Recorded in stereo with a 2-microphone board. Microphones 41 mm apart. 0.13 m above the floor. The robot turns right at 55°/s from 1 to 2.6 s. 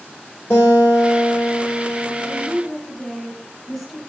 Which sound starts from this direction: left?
A guitar, at 0.5 s.